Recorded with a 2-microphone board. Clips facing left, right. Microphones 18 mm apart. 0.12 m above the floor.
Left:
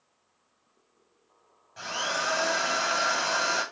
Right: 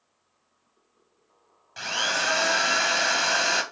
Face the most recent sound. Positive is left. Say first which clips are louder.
# right 4 dB
turn(degrees=-60)  # may be behind; listen again after turning